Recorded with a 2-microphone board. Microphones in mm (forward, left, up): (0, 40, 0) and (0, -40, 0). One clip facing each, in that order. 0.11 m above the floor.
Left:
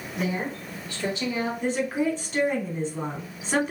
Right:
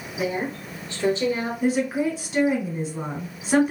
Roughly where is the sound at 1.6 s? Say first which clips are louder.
Right 4 dB; centre.